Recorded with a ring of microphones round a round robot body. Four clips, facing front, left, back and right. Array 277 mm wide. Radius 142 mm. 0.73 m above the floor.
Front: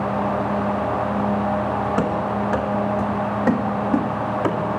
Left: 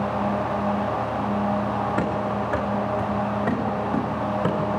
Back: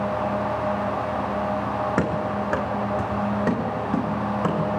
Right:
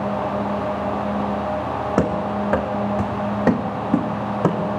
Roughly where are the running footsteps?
Right.